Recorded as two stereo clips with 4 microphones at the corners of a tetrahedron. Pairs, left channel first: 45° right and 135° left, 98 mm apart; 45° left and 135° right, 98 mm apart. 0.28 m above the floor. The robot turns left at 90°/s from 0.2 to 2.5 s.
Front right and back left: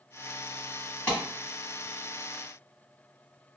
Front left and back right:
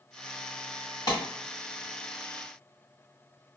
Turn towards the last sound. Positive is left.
turn(degrees=-100)